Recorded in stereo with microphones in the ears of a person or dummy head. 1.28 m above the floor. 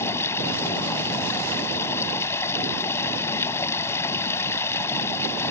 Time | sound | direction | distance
0.0 | running water | 20° left (ahead or behind) | ?